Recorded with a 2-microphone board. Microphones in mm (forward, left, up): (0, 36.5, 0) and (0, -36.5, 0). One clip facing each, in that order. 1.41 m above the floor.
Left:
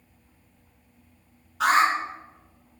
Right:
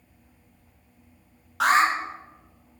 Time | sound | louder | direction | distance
1.6 | an alarm | even | 90° right | 1.9 m